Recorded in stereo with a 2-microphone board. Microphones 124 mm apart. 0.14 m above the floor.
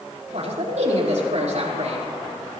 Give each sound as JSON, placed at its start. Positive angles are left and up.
{"t": 0.3, "sound": "a man speaking", "side_deg": -65, "distance_m": 4.5}